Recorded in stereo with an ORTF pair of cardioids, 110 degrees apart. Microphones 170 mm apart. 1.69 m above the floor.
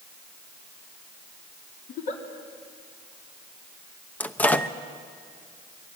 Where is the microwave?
10° left, 0.9 m.